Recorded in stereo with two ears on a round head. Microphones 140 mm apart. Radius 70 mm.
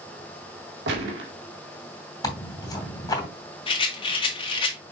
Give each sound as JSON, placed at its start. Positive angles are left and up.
{"t": 0.9, "sound": "a gunshot", "side_deg": -75, "distance_m": 1.9}
{"t": 2.2, "sound": "tearing paper", "side_deg": 25, "distance_m": 2.5}
{"t": 3.7, "sound": "a rattle", "side_deg": 35, "distance_m": 1.9}